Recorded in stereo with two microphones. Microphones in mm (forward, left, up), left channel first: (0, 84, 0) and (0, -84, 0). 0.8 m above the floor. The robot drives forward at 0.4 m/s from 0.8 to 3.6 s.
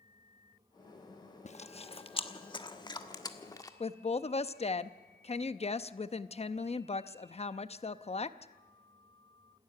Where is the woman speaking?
40° left (ahead or behind), 0.7 m.